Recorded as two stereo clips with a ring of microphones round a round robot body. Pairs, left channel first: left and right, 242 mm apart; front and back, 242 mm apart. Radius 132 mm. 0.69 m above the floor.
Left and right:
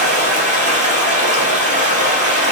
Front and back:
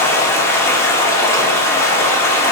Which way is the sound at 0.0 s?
70° right.